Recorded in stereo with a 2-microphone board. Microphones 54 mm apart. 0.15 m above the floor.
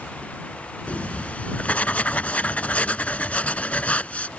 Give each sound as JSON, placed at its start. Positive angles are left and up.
{"t": 0.9, "sound": "writing", "side_deg": 25}